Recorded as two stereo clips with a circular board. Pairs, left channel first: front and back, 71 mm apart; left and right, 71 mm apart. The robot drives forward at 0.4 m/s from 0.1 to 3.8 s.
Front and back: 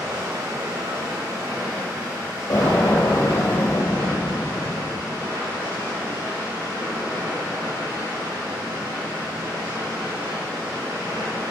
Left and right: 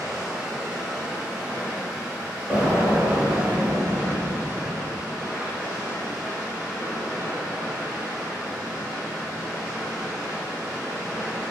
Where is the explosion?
25° right, 1.4 m; by 5.2 s 40° right, 0.9 m.